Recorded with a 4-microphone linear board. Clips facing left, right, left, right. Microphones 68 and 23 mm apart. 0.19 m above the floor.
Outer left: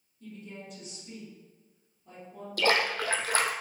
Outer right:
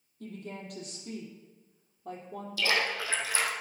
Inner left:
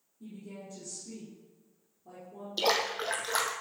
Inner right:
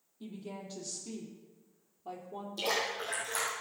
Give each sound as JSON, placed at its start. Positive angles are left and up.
{"t": 0.2, "sound": "a woman speaking", "side_deg": -70, "distance_m": 5.0}
{"t": 2.6, "sound": "a splash", "side_deg": 50, "distance_m": 1.8}